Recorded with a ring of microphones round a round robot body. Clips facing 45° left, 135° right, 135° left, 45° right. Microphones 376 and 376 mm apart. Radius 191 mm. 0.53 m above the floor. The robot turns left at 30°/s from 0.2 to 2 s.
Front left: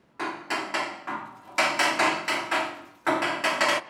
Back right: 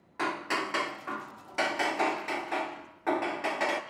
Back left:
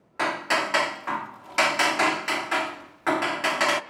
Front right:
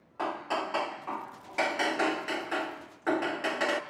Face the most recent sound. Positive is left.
turn(degrees=80)